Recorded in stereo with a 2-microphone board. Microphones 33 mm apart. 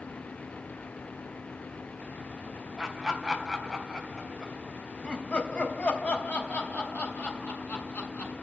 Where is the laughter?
10° right (ahead or behind), 4 m; by 8.3 s 75° left (ahead or behind), 5 m.